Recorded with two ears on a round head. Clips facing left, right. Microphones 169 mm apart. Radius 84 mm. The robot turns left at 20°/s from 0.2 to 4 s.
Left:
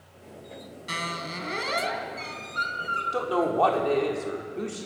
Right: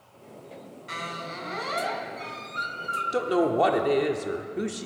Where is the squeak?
50° left, 1.6 m; by 3.0 s 10° left, 1.6 m.